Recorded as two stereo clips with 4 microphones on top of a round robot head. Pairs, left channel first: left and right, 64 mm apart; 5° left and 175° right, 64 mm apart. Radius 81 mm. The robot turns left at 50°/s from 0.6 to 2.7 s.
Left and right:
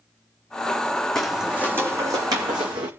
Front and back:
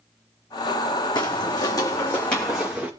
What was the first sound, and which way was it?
Footsteps, 5° left.